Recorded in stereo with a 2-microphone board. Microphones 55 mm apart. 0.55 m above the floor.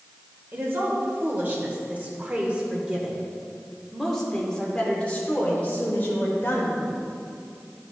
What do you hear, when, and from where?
0.5 s a woman speaking: 45° right (ahead or behind), 2.5 m; by 7.0 s 45° left (ahead or behind), 2.5 m